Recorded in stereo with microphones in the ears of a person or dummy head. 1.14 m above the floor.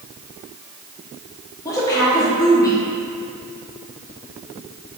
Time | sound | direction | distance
1.6 | a woman speaking | 20° left (ahead or behind) | 0.9 m